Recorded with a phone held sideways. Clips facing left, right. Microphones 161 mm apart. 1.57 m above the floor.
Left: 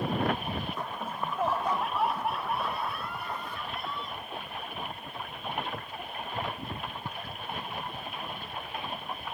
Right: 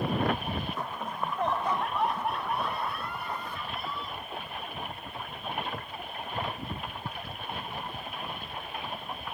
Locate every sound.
1.0 s laughter: 5° left (ahead or behind); by 4.2 s centre (ahead or behind)